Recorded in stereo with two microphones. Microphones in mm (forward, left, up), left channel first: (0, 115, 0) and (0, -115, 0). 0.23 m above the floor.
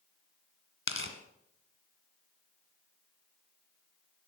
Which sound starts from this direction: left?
Tearing paper, at 0.9 s.